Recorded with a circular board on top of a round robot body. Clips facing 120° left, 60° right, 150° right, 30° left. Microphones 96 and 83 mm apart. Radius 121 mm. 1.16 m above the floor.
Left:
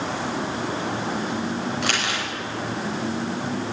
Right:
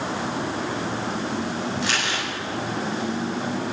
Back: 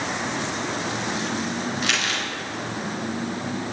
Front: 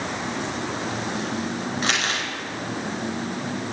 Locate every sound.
1.8 s crumpling: 85° left, 5 m